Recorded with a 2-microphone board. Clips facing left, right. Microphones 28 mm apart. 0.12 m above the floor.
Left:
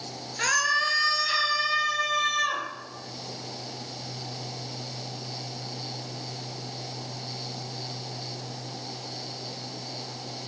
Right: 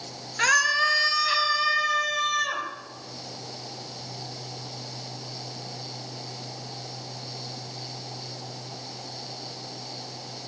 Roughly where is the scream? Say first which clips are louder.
Right 3 dB; right.